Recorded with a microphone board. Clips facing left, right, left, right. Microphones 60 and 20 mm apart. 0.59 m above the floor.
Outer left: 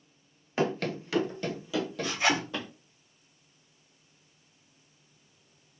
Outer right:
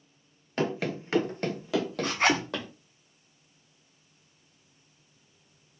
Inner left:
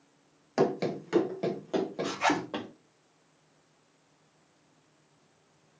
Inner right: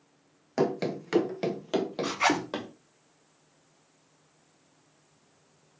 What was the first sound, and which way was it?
Running footsteps, 5° left (ahead or behind).